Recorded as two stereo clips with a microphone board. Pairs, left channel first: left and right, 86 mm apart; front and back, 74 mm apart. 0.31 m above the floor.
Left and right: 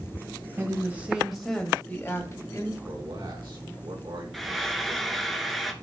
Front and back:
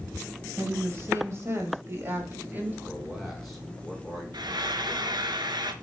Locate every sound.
0.6 s a woman speaking: 140° right, 1.6 m; by 2.8 s 120° left, 1.8 m
2.9 s a man speaking: 90° right, 3 m
4.3 s frying: straight behind, 0.7 m